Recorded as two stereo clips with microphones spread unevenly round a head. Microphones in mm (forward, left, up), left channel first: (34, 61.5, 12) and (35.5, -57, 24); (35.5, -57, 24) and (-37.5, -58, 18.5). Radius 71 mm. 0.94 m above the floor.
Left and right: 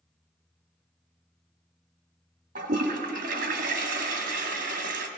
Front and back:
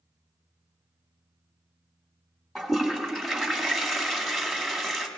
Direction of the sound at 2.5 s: 90° right.